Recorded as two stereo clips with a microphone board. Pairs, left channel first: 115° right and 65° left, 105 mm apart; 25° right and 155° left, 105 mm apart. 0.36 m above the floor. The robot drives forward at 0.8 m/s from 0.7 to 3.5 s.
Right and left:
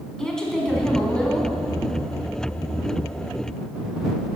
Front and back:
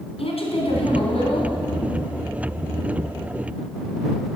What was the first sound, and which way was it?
A woman speaking, 30° right.